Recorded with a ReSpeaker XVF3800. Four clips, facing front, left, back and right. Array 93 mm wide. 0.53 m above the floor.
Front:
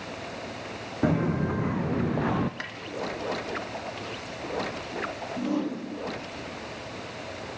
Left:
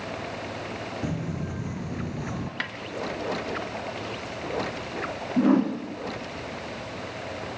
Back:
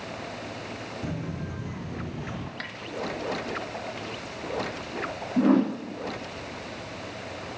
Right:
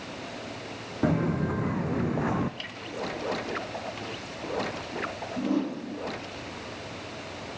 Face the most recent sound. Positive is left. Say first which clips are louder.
# left 7 dB, back 8 dB
turn(degrees=130)